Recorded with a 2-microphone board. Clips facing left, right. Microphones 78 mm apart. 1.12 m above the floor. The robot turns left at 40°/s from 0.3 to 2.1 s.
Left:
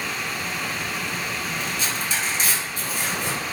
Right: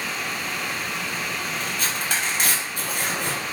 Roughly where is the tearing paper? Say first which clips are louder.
Even; right.